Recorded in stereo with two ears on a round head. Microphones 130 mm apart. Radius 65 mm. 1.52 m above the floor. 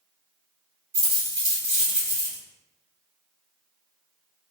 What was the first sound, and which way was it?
A dropped coin, 45° right (ahead or behind).